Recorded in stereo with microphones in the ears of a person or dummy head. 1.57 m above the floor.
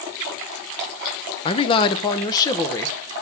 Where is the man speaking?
30° left (ahead or behind), 0.9 m; by 3.0 s 20° left (ahead or behind), 1.8 m.